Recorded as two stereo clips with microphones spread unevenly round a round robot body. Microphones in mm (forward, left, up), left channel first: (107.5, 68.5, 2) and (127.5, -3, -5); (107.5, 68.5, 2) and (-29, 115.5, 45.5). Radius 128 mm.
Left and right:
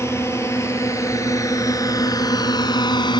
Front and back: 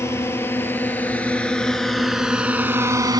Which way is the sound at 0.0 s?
55° left.